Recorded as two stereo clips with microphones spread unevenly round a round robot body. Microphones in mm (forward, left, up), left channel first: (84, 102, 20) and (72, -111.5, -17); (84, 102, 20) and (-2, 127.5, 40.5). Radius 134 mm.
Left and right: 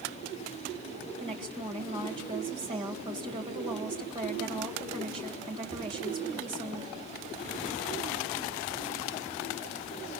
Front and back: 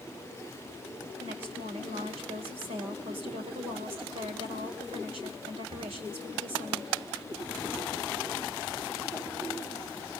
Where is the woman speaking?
160° right, 1.9 m.